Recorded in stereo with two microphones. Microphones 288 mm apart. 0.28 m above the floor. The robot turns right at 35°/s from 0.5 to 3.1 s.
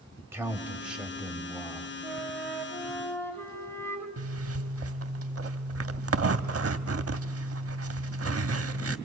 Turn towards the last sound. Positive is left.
turn(degrees=-55)  # may be behind; listen again after turning